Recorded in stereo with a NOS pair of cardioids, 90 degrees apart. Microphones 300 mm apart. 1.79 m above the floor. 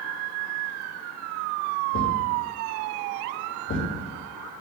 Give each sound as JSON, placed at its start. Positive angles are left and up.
{"t": 1.9, "sound": "a thud", "azimuth_deg": 45, "distance_m": 4.0}